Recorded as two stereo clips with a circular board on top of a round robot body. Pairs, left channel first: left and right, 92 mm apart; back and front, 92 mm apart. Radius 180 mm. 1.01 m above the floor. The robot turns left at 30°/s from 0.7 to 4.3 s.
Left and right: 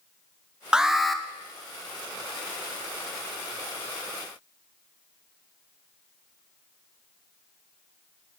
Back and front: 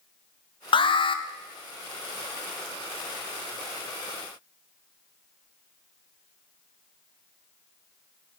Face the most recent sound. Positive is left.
turn(degrees=85)